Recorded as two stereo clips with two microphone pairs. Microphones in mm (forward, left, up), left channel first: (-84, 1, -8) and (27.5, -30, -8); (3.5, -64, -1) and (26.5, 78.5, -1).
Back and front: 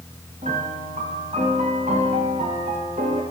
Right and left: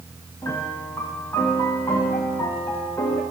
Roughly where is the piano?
Ahead right.